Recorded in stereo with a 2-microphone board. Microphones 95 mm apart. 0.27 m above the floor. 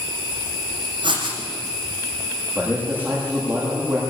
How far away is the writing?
About 8 m.